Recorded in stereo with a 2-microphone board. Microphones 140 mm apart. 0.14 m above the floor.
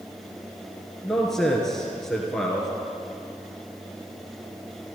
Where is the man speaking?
5° left (ahead or behind), 2.5 m.